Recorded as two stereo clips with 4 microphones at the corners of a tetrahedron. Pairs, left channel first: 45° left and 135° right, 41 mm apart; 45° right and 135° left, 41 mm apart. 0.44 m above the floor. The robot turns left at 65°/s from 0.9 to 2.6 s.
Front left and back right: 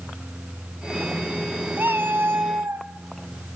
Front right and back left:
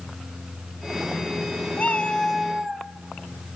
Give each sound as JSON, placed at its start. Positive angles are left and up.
{"t": 1.8, "sound": "a cat meowing", "azimuth_deg": -95, "distance_m": 1.0}